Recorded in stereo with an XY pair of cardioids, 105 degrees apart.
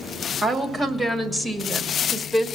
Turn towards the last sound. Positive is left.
turn(degrees=-5)